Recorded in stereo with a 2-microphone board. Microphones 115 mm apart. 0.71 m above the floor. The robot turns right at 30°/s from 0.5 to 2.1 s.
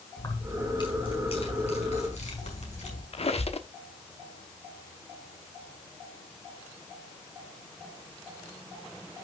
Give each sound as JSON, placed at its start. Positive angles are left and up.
{"t": 0.2, "sound": "keys jangling", "azimuth_deg": 35, "distance_m": 5.0}
{"t": 3.1, "sound": "a squeak", "side_deg": 60, "distance_m": 1.2}